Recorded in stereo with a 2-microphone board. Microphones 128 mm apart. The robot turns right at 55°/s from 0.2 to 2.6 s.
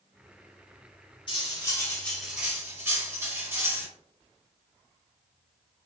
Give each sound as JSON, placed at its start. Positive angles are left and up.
{"t": 1.3, "sound": "cutlery clinking", "azimuth_deg": 130, "distance_m": 1.2}